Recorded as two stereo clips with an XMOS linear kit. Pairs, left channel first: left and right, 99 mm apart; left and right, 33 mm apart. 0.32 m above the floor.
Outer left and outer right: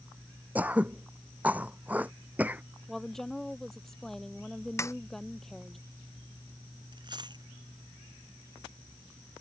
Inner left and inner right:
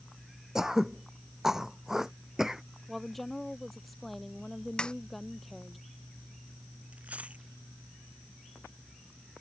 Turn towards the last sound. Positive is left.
turn(degrees=-45)  # may be behind; listen again after turning